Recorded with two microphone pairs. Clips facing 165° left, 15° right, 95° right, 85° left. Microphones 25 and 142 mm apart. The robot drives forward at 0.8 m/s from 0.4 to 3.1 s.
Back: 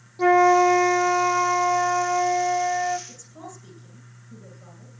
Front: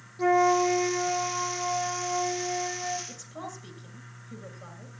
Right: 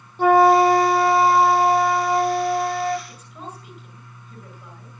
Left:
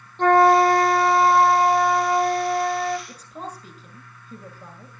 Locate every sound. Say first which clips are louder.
0.2 s a flute: back 6 dB, right 1 dB; 170° right, 0.8 m; by 3.0 s straight behind, 2.5 m
3.1 s a woman speaking: front 2 dB, left 2 dB; 40° left, 8.5 m